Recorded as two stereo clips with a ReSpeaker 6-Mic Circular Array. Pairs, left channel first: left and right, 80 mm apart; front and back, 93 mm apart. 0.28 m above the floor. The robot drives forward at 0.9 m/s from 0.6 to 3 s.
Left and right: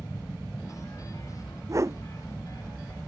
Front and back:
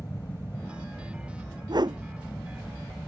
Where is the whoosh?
140° right.